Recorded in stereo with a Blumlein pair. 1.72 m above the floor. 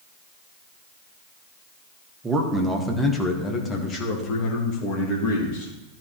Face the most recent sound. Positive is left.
turn(degrees=45)